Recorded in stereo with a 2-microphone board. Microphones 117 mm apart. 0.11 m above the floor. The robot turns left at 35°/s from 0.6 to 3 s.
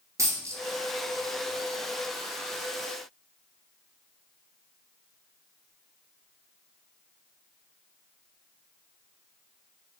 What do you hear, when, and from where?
0.2 s a dropped coin: 25° right (ahead or behind), 0.8 m